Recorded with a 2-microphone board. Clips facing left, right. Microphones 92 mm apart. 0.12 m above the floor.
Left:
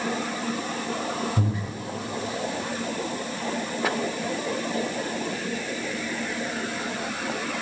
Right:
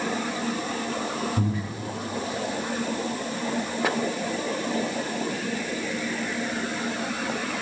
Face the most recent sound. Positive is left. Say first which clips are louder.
# right 1 dB
turn(degrees=20)  # may be behind; listen again after turning